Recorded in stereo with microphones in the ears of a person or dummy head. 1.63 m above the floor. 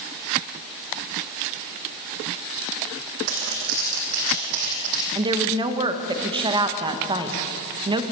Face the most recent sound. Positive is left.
turn(degrees=-25)  # may be behind; listen again after turning